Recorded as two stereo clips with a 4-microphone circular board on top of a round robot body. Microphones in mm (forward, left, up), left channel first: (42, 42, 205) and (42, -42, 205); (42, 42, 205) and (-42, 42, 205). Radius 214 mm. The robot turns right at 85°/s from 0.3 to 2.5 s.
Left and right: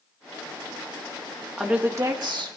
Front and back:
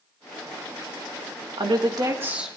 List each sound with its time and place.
1.6 s a woman speaking: 175° right, 1.8 m; by 2.6 s 95° right, 1.8 m